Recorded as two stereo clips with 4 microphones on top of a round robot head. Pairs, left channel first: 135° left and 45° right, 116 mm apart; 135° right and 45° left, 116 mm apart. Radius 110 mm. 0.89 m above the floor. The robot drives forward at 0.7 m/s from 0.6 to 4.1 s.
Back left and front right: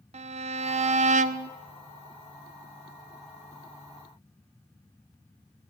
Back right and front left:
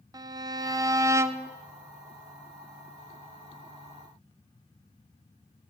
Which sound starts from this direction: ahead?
A violin, at 0.1 s.